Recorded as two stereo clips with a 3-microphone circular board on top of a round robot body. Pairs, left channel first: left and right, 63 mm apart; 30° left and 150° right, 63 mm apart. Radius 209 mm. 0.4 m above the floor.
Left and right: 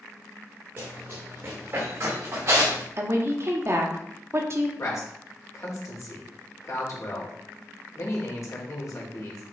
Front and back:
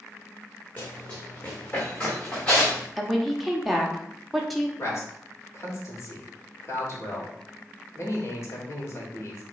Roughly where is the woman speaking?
Ahead right.